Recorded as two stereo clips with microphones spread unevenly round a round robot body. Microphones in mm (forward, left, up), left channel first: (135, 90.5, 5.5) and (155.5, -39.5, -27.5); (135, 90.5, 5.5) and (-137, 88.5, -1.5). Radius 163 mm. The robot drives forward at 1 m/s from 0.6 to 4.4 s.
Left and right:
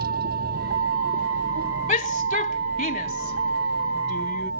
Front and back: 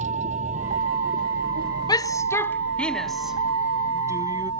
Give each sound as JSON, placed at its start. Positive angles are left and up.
{"t": 0.0, "sound": "a vehicle", "azimuth_deg": -110}
{"t": 1.9, "sound": "a shout", "azimuth_deg": 75}